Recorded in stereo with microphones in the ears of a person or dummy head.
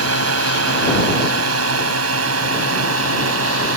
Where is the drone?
80° right; by 3.8 s 75° right (ahead or behind).